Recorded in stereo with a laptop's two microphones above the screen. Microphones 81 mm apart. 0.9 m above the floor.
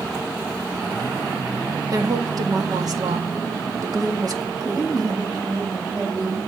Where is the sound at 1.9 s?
50° right (ahead or behind), 1.6 m.